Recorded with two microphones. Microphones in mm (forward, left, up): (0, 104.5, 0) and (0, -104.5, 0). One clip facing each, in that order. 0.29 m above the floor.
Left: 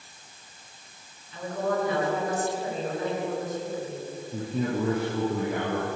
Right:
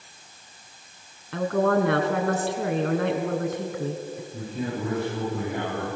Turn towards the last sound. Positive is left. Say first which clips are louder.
# left 4 dB
turn(degrees=75)  # may be behind; listen again after turning